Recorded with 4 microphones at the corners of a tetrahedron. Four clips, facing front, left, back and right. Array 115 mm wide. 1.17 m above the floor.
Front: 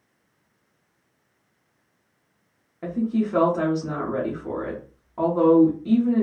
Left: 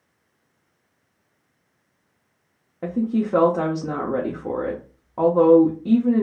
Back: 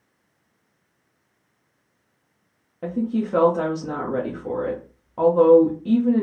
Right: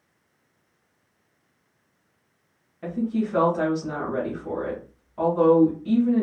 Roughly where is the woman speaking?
Left.